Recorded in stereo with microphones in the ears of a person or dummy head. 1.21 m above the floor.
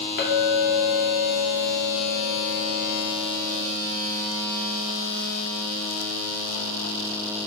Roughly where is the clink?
Left.